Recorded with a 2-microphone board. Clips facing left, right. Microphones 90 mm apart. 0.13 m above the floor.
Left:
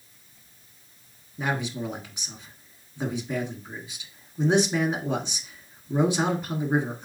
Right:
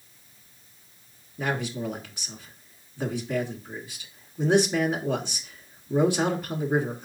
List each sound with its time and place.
1.4 s a man speaking: 20° left (ahead or behind), 1.0 m